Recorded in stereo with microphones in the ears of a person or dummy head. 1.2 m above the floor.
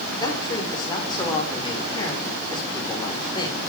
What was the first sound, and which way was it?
A man speaking, 15° left (ahead or behind).